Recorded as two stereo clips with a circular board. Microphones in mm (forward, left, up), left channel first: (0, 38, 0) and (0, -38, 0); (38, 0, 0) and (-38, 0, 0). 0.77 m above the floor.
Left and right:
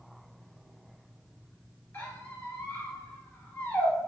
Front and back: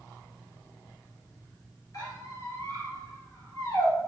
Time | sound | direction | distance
1.9 | a squeak | 30° left | 1.7 m